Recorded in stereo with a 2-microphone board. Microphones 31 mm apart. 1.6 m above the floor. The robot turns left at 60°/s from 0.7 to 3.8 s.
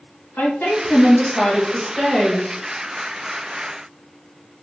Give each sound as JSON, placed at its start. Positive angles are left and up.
{"t": 0.4, "sound": "a woman speaking", "azimuth_deg": 85, "distance_m": 1.8}